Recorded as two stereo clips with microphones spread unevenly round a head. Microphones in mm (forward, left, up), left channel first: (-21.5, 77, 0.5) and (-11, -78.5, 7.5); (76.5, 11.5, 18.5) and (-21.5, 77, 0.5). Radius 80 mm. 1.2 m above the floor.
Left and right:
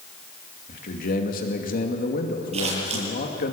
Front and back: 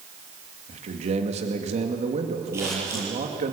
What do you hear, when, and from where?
0.7 s a man speaking: 125° left, 2.5 m
2.5 s scissors: 140° right, 9 m